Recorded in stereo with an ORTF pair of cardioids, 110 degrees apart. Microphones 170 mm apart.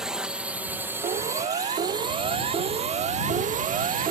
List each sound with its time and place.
0.0 s a drone: 5° right; by 4.1 s 60° right
1.0 s a siren: 40° right